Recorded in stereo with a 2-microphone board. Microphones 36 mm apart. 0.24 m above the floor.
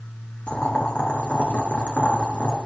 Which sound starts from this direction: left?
Boiling, at 0.5 s.